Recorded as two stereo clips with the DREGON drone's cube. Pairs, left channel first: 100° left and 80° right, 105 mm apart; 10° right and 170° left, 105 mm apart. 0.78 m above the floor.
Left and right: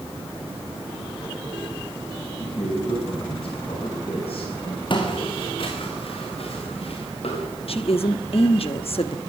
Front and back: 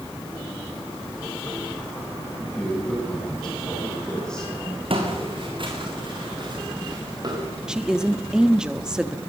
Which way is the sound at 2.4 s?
75° left.